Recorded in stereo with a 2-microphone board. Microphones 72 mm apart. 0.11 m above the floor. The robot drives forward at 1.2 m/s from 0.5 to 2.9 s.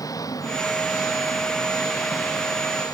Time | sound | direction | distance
0.0 | an engine running | 55° left (ahead or behind) | ?